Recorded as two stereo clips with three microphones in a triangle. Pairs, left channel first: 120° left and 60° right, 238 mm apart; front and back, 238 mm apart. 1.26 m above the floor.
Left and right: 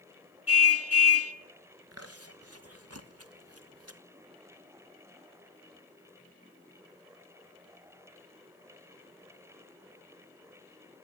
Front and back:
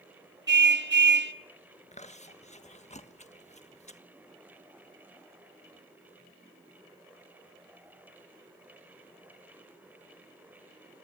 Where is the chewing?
60° right, 1.3 m.